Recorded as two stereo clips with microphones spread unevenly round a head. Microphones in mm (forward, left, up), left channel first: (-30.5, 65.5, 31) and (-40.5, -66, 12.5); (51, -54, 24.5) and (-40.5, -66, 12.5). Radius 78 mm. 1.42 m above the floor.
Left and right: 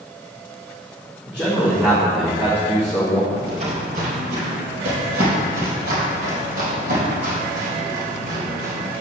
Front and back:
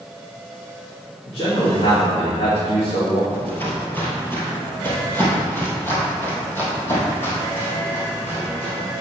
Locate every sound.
1.3 s a man speaking: 10° right, 2 m
3.3 s footsteps: 45° right, 2 m; by 8.9 s 55° right, 5 m